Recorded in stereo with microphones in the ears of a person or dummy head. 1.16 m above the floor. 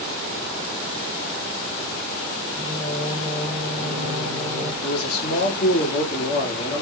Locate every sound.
2.5 s singing: 30° right (ahead or behind), 1.1 m
4.8 s a man speaking: 50° left (ahead or behind), 1.8 m